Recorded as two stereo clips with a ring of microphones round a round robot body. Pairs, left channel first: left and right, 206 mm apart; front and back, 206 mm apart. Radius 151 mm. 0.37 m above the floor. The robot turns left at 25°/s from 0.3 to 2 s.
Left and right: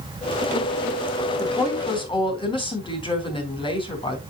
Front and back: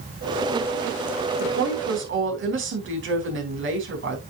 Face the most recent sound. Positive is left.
turn(degrees=155)